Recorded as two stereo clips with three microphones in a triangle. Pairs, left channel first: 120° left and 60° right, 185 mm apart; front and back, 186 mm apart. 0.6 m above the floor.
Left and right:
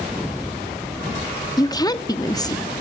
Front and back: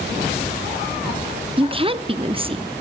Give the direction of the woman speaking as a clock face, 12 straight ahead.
6 o'clock.